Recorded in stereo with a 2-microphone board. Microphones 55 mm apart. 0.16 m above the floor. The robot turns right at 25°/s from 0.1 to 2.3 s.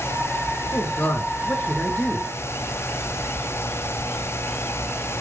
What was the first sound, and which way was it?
A man speaking, 125° left.